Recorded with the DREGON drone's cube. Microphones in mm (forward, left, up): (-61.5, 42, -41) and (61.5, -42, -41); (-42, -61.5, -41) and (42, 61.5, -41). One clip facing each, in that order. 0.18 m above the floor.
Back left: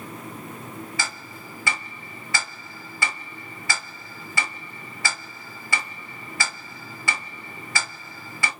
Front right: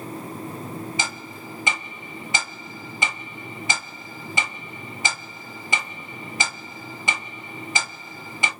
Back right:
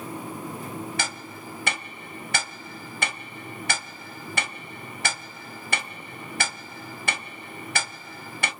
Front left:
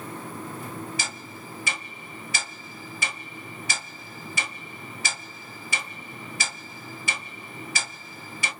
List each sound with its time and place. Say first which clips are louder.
1.0 s ticking: front right 2 dB, back right 3 dB; 105° right, 0.7 m